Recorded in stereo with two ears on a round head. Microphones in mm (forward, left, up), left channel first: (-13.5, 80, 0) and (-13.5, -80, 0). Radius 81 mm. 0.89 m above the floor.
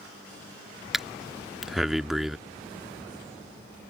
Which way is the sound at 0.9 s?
Centre (ahead or behind).